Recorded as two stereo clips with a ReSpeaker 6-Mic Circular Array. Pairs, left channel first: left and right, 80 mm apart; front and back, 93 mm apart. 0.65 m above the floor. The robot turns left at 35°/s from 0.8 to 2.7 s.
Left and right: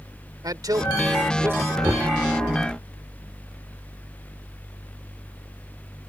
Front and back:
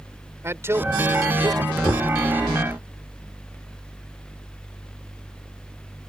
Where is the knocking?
45° right; by 2.1 s 55° right.